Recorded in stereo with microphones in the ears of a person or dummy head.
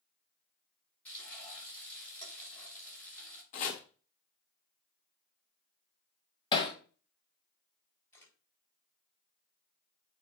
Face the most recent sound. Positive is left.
turn(degrees=10)  # may be behind; listen again after turning